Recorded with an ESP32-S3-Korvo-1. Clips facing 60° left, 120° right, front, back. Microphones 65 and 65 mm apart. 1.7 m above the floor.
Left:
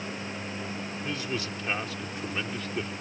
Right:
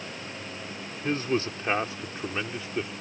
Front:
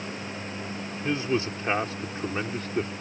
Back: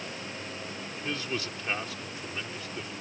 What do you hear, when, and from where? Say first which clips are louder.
1.0 s a man speaking: right 8 dB, front 8 dB; 65° right; by 2.9 s 40° right